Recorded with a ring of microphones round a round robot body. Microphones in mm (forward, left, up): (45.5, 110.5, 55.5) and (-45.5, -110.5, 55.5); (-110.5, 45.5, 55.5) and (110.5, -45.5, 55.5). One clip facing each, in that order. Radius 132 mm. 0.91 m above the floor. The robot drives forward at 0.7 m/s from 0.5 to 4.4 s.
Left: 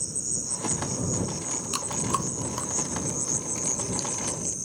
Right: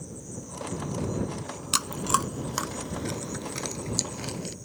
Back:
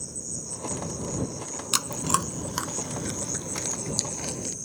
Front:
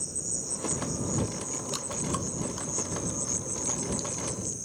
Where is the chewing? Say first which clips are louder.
Even, back 3 dB; straight behind.